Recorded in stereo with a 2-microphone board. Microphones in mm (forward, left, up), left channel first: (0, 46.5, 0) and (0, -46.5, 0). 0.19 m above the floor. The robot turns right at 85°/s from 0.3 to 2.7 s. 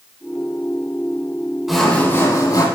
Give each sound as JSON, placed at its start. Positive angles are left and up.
{"t": 1.7, "sound": "sawing", "azimuth_deg": -5, "distance_m": 1.8}